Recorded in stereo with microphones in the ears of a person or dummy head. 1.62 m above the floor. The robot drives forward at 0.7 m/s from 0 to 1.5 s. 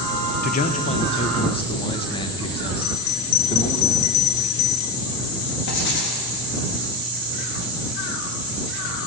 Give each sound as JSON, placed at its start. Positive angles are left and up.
{"t": 0.4, "sound": "a man speaking", "side_deg": 45, "distance_m": 1.0}
{"t": 2.8, "sound": "a bell", "side_deg": 85, "distance_m": 0.6}
{"t": 5.7, "sound": "writing", "side_deg": 60, "distance_m": 3.5}